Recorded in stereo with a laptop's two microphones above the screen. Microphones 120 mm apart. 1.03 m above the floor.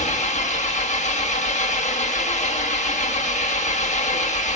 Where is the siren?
No siren in this recording.